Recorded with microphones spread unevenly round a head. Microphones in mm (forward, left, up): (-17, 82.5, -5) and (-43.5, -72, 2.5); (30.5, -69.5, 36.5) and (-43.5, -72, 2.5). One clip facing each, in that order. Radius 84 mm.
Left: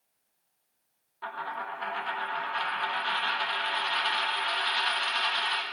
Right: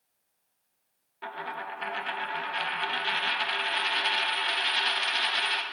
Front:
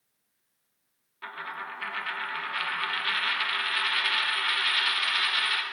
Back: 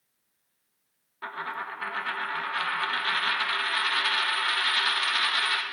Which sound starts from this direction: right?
A dropped coin, at 1.2 s.